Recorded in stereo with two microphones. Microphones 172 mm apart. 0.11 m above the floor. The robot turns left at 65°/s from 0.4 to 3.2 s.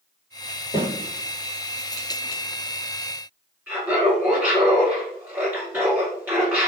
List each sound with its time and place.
0.7 s a snare drum: 35° left (ahead or behind), 1.7 m; by 0.9 s 40° left (ahead or behind), 1.7 m
3.7 s laughter: 15° right (ahead or behind), 2.0 m